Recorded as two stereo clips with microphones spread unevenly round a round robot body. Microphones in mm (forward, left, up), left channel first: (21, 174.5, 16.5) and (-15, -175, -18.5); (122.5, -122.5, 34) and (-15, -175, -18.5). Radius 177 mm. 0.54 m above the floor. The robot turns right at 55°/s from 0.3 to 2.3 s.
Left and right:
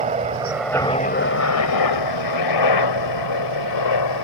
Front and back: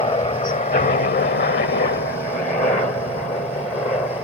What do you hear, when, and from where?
0.0 s a helicopter: 25° right; by 4.3 s 95° left